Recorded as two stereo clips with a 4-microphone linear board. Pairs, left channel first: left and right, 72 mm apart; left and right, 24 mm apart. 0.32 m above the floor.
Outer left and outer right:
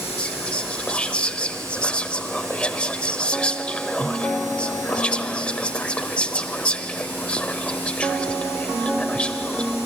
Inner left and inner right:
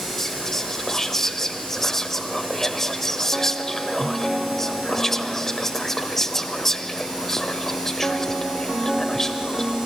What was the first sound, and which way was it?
Whispering, 15° left (ahead or behind).